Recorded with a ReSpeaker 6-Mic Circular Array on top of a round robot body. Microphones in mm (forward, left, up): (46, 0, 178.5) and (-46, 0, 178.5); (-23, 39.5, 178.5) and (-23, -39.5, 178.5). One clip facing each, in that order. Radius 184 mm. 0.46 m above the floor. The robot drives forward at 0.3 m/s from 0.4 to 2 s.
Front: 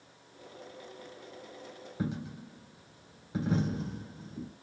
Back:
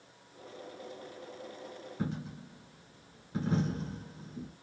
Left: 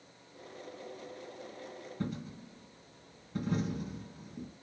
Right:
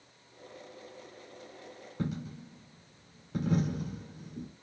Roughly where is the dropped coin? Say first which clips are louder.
Front 2 dB, right 3 dB; right.